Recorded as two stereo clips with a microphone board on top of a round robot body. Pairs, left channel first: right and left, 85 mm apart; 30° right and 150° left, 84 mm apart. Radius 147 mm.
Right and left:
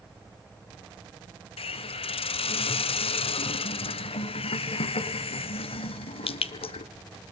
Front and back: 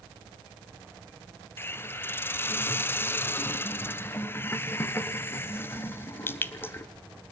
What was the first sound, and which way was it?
A hiss, 95° right.